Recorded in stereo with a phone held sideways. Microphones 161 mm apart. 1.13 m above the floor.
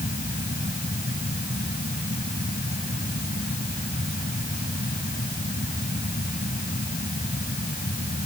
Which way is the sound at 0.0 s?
75° left (ahead or behind).